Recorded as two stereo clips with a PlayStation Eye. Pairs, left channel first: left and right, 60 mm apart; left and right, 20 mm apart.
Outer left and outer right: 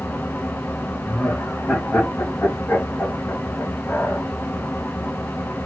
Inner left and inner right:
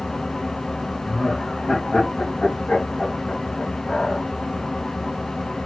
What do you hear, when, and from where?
0.0 s an engine running: 40° left (ahead or behind), 0.7 m
1.0 s laughter: 20° left (ahead or behind), 1.9 m